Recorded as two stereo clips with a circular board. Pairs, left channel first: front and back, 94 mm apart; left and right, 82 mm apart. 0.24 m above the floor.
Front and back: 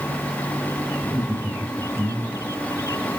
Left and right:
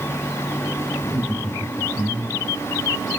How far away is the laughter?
About 6 m.